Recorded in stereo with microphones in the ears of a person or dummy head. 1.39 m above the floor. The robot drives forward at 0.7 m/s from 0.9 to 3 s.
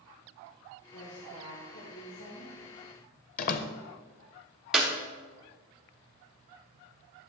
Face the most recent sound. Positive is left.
turn(degrees=-5)  # may be behind; listen again after turning